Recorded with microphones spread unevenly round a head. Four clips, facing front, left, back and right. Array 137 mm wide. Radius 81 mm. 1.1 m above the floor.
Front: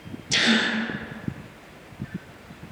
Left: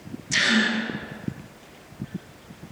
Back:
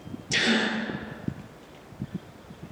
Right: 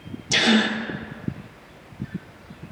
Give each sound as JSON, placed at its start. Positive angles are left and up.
{"t": 0.3, "sound": "a gasp", "azimuth_deg": -115, "distance_m": 1.8}